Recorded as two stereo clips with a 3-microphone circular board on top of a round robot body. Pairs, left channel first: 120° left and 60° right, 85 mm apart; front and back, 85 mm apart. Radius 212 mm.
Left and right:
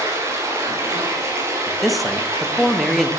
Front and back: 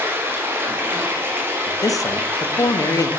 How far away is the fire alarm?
No fire alarm in this recording.